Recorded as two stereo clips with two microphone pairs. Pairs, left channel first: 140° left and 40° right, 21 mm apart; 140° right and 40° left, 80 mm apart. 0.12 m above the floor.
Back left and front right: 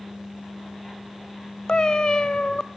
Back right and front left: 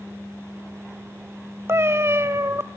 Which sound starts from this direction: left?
A cat meowing, at 1.7 s.